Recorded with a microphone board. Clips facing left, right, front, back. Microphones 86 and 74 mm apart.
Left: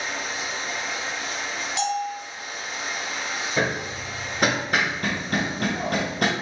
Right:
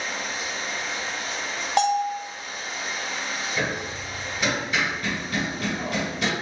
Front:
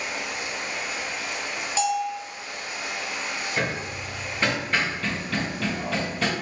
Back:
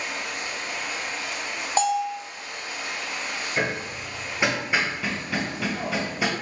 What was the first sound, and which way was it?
Running water, 80° left.